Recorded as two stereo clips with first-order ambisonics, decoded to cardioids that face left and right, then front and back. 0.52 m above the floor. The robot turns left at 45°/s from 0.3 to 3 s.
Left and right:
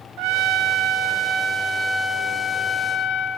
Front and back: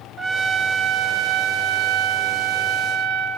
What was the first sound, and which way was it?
A trumpet, 100° right.